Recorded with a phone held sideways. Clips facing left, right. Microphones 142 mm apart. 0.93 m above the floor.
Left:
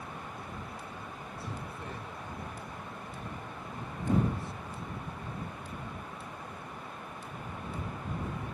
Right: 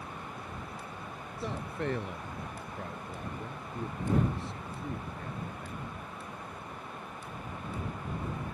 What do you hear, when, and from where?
1.4 s a man speaking: 75° right (ahead or behind)